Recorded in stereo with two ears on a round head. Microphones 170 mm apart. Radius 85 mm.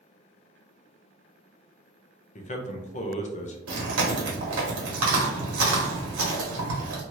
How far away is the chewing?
About 1.3 m.